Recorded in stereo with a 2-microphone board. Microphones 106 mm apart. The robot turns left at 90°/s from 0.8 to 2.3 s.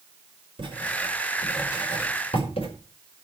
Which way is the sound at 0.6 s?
50° right (ahead or behind).